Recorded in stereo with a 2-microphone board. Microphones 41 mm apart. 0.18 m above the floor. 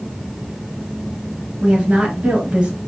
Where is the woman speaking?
20° right (ahead or behind), 2.5 m.